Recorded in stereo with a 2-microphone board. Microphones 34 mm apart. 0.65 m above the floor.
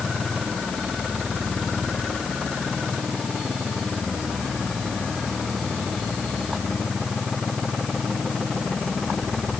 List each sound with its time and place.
Only background noise.